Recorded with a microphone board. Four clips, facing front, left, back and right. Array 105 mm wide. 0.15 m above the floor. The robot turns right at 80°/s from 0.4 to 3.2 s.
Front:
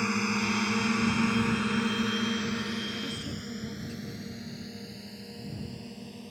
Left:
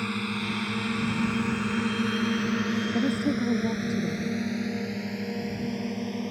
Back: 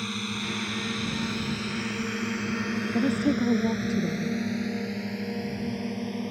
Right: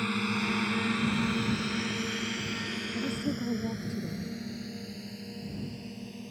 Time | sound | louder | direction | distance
0.0 | a drone | even, front 4 dB | 5° left | ?
2.9 | a woman speaking | left 5 dB, back 13 dB | 135° left | ?